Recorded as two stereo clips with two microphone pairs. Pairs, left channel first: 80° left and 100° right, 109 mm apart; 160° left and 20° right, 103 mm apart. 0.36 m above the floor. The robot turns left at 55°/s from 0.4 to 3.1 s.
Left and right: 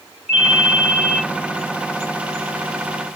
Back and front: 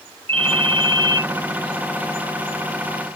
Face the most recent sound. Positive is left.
turn(degrees=-160)